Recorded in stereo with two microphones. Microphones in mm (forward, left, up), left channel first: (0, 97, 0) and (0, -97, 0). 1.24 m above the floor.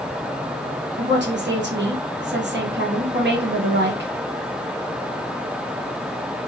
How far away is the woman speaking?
About 1.3 m.